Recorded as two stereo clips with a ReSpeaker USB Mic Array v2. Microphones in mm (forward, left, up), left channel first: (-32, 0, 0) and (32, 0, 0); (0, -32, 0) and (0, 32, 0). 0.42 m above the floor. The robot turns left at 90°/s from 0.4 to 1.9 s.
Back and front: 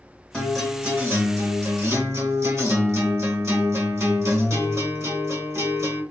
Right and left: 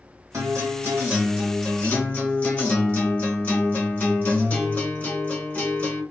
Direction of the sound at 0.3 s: 105° left.